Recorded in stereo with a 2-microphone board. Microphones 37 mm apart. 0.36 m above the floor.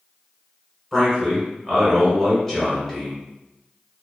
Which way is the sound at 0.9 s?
5° left (ahead or behind).